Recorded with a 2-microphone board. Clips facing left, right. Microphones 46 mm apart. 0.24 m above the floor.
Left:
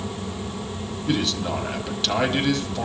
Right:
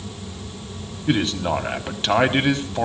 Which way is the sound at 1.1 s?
30° right (ahead or behind).